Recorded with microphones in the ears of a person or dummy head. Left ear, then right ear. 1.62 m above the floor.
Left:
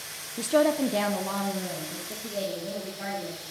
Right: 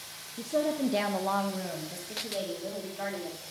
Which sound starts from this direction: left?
A woman speaking, at 0.4 s.